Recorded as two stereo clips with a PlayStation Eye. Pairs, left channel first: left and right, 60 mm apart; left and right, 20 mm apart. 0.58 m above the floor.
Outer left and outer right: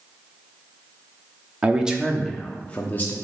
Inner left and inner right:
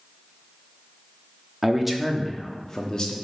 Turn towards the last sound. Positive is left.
turn(degrees=35)  # may be behind; listen again after turning